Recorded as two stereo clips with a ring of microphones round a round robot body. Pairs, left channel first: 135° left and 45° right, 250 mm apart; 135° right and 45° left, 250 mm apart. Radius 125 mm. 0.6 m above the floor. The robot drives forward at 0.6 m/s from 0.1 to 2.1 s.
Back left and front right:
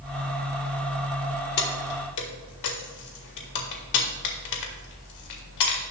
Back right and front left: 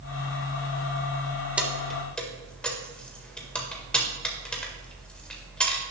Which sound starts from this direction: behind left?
Keys jangling, at 1.6 s.